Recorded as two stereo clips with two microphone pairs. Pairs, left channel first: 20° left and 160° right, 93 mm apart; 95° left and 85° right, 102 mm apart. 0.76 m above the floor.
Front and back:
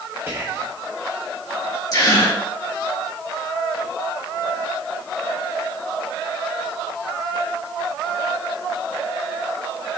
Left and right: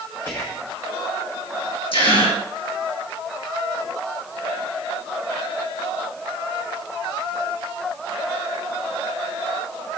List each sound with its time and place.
0.3 s whispering: 150° left, 1.1 m
1.9 s a gasp: 65° left, 2.5 m